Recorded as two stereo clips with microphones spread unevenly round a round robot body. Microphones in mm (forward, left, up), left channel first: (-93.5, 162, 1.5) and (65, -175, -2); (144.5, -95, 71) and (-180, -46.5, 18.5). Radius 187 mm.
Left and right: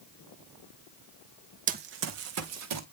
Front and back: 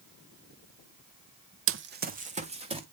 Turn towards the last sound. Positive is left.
turn(degrees=-115)